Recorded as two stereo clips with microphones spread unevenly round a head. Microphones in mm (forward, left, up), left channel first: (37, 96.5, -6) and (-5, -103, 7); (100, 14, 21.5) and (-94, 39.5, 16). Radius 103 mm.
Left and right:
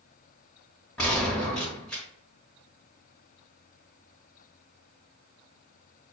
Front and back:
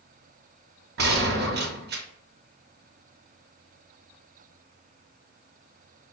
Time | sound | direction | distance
1.0 | a gunshot | 160° left | 0.9 m